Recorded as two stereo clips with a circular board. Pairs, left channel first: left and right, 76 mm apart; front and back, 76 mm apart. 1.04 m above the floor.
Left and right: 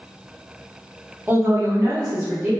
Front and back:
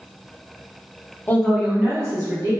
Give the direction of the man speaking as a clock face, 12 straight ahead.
2 o'clock.